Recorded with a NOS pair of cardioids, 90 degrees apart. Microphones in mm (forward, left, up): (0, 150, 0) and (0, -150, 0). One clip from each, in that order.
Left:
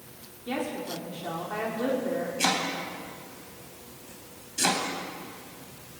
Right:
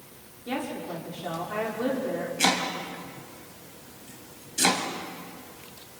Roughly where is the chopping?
Ahead.